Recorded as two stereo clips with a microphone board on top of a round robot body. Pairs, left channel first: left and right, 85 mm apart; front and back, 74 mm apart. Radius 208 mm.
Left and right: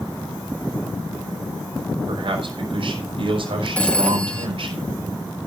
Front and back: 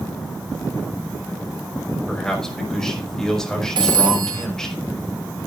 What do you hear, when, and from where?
2.1 s a man speaking: 85° right, 5 m
3.8 s a phone ringing: 165° left, 0.9 m